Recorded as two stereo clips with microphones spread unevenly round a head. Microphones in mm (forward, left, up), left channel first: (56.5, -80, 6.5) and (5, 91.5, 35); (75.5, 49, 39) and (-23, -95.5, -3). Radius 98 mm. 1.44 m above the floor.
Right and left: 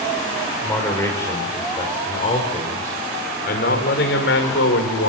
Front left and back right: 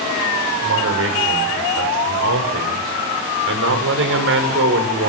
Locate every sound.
0.6 s a man speaking: 155° right, 5 m; by 5.1 s 100° right, 5 m